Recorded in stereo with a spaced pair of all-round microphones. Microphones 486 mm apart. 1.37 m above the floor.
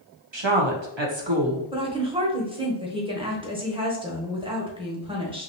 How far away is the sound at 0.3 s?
About 1.1 m.